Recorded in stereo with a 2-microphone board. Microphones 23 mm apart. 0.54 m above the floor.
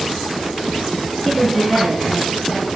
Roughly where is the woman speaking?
Centre.